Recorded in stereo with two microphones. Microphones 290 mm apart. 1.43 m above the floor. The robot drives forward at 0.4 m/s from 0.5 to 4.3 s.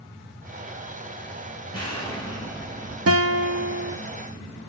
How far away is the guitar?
About 0.5 m.